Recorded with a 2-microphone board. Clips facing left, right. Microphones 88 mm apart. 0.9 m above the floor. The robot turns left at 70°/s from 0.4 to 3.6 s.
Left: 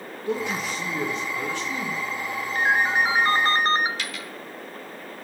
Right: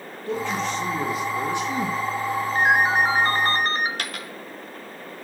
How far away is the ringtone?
About 0.7 m.